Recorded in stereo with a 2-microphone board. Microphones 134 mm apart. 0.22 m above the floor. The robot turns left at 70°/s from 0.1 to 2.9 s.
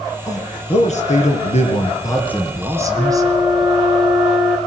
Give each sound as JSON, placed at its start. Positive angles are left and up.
{"t": 0.3, "sound": "a man speaking", "azimuth_deg": 155, "distance_m": 3.0}
{"t": 3.0, "sound": "a flute", "side_deg": -20, "distance_m": 8.5}